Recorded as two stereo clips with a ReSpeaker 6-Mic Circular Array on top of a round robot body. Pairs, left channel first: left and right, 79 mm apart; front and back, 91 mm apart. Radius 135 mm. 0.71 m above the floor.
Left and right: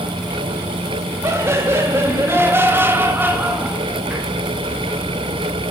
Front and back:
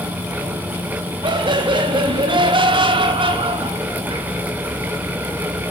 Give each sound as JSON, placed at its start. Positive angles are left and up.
{"t": 1.2, "sound": "laughter", "azimuth_deg": -150, "distance_m": 4.5}